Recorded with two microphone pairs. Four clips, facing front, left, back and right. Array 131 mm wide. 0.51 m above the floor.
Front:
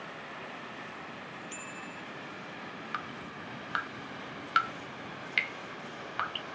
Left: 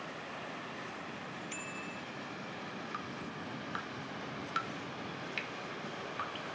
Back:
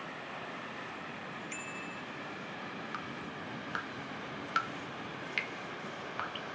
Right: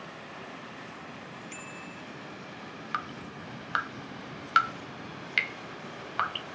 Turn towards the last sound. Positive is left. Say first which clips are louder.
# right 5 dB, front 1 dB
turn(degrees=-75)